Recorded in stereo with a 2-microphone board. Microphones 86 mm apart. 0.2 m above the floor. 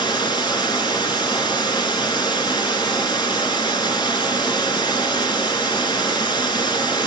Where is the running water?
60° left (ahead or behind), 1.9 m.